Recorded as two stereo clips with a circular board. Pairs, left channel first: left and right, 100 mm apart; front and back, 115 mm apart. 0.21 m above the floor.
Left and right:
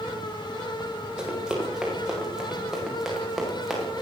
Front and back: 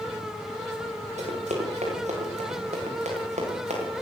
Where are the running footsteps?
175° right, 10 m; by 4.0 s straight behind, 11 m.